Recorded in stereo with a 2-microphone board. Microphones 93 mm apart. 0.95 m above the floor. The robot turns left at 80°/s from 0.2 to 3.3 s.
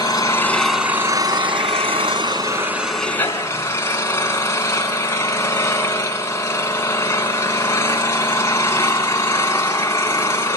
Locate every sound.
0.0 s an engine running: 40° left, 3 m; by 10.6 s 150° left, 3 m